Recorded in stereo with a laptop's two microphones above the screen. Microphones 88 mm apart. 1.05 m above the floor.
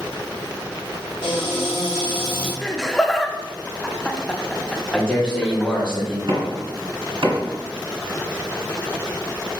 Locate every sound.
1.2 s a cupboard door: 70° left (ahead or behind), 1.9 m
2.6 s laughter: 5° left (ahead or behind), 0.7 m
4.9 s a man speaking: 10° left (ahead or behind), 2 m
6.3 s knocking: 65° right (ahead or behind), 1.8 m